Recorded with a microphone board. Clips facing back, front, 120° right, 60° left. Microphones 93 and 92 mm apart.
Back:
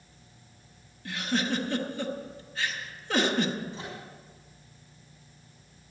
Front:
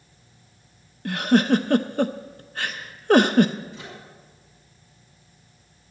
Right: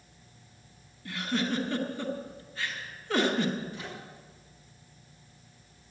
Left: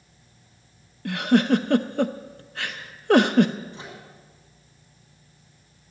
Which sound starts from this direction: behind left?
A microwave, at 3.7 s.